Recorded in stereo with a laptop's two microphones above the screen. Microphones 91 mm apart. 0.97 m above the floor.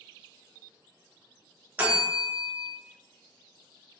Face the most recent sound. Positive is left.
turn(degrees=-20)  # may be behind; listen again after turning